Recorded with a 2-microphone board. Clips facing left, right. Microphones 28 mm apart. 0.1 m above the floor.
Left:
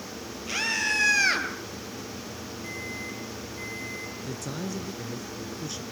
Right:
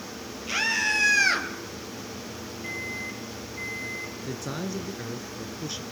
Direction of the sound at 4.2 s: 20° right (ahead or behind).